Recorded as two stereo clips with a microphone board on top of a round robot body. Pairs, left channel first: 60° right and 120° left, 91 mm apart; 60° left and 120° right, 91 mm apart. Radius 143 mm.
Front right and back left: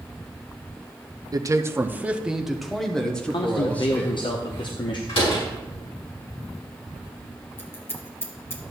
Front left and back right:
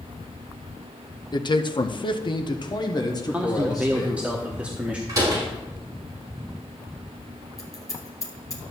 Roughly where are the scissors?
Ahead.